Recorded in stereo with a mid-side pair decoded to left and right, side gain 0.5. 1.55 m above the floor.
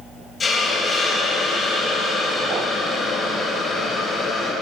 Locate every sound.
0.4 s a hiss: 30° left, 3 m